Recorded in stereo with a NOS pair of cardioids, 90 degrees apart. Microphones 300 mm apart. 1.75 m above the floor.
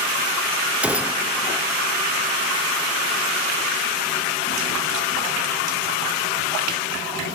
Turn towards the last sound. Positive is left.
turn(degrees=-5)